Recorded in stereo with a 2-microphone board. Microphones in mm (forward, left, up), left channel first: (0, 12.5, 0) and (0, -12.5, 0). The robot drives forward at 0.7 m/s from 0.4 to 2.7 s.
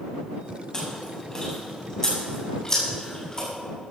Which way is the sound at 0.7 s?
25° left (ahead or behind).